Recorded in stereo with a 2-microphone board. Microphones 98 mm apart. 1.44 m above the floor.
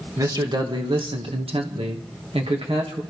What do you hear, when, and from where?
0.2 s a man speaking: 40° right (ahead or behind), 2.5 m; by 3.0 s 65° right (ahead or behind), 2.5 m